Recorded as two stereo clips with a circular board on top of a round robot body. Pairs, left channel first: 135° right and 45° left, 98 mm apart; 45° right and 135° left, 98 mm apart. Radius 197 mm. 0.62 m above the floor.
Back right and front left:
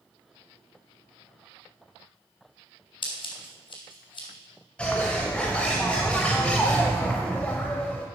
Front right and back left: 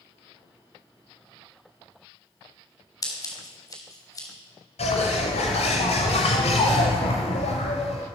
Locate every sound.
3.0 s scissors: 100° right, 3.5 m
4.8 s a bird: 55° right, 0.6 m